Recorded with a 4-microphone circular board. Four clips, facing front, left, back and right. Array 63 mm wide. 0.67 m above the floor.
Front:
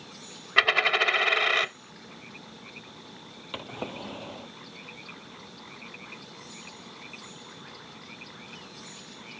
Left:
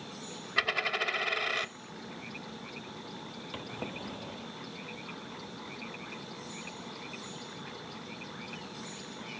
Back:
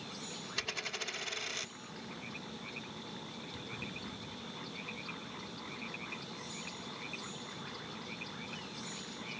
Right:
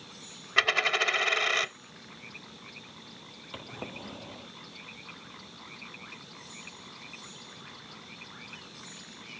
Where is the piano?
No piano in this recording.